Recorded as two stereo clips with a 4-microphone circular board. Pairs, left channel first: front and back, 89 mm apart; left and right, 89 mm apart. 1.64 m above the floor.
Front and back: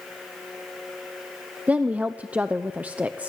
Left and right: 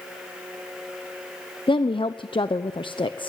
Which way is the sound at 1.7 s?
105° left.